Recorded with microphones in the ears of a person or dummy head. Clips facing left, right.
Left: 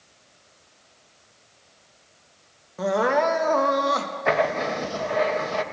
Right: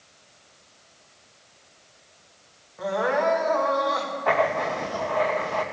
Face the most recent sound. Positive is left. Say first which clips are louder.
# left 1 dB
turn(degrees=30)  # may be behind; listen again after turning